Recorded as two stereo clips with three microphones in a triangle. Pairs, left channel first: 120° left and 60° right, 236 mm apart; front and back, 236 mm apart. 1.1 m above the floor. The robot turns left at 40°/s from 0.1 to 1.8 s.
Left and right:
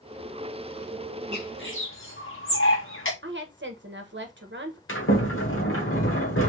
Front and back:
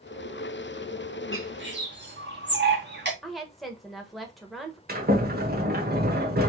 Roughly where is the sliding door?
Behind left.